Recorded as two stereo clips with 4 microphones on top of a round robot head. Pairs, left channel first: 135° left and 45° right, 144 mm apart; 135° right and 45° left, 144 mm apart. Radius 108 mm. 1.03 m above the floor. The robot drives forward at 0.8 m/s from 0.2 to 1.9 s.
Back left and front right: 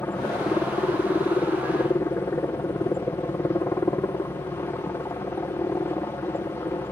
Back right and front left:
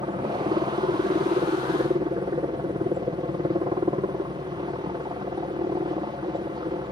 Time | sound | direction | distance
0.0 | a helicopter | 70° left | ?